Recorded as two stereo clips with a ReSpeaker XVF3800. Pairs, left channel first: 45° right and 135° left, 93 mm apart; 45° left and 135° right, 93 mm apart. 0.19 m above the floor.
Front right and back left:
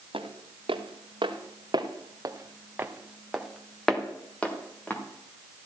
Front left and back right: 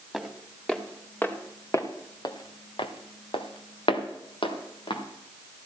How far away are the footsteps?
About 2.5 m.